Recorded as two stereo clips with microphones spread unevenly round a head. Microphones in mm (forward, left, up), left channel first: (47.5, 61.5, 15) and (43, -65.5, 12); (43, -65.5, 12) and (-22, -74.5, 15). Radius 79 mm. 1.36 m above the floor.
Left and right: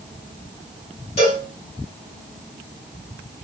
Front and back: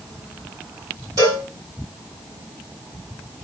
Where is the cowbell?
135° left, 2 m.